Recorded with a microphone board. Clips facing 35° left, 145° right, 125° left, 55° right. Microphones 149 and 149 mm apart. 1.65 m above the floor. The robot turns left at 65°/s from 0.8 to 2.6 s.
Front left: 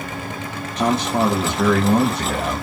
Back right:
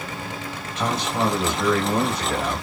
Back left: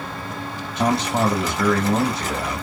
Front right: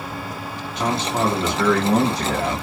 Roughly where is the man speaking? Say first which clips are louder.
Front left 5 dB, back left 2 dB; left.